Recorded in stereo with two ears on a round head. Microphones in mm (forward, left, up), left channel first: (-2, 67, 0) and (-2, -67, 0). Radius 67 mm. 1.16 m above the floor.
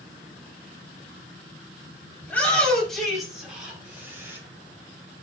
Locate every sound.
2.2 s a shout: 10° left (ahead or behind), 6 m; by 4.4 s 15° right (ahead or behind), 7 m